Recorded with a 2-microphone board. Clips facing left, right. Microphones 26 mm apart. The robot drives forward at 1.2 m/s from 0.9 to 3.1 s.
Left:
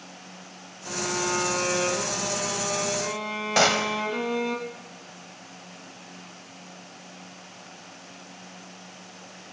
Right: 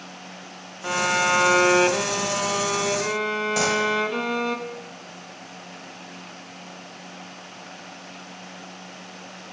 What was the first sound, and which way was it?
A violin, 60° right (ahead or behind).